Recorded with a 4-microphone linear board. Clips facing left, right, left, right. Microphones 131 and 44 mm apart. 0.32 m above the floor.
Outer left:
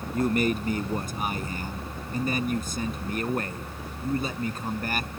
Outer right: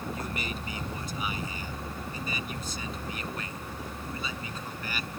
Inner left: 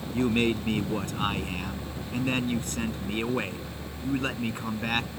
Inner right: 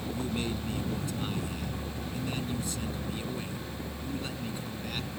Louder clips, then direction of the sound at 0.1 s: Outer left 11 dB, inner left 12 dB; 50° left (ahead or behind).